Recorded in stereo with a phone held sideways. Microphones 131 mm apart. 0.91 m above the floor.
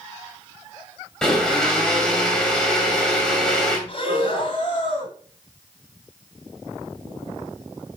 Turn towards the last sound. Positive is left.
turn(degrees=45)  # may be behind; listen again after turning